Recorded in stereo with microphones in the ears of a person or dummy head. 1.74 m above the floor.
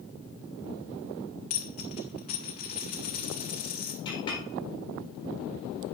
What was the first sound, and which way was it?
A dropped coin, 45° left (ahead or behind).